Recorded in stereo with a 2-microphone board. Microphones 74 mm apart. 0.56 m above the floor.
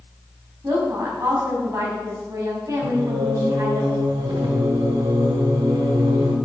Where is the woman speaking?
45° right (ahead or behind), 4 m.